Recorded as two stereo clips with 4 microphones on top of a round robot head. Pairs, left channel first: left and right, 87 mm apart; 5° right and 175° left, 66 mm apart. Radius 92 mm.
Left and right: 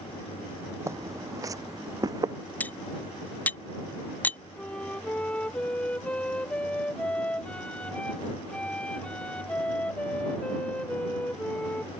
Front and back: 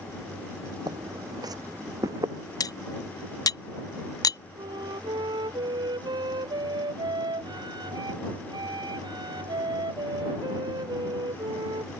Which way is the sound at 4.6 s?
165° left.